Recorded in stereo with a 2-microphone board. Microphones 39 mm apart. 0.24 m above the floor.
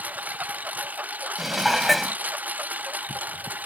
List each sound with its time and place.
0.0 s a lawn mower: 40° right (ahead or behind); by 3.7 s 45° right (ahead or behind)
1.4 s dishes clattering: centre (ahead or behind)